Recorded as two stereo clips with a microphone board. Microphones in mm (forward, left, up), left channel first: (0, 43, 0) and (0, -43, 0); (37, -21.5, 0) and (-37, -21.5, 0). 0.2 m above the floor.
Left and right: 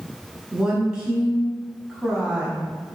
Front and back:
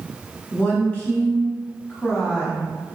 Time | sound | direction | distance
0.5 | a woman speaking | 25° right | 1.1 m